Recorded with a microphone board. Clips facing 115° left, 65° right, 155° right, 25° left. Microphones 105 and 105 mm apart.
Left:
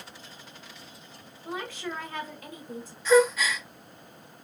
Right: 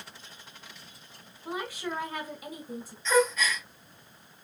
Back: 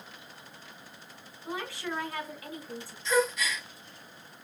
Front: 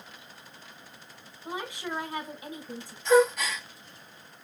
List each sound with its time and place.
1.4 s a woman speaking: 10° right, 1.6 m
3.0 s a gasp: 35° left, 2 m